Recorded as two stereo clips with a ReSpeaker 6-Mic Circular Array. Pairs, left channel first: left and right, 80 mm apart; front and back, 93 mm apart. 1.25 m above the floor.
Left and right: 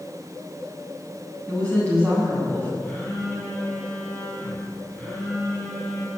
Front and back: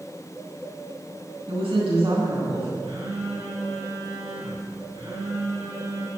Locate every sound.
1.5 s a woman speaking: 160° left, 8 m
2.8 s a phone buzzing: 165° left, 7 m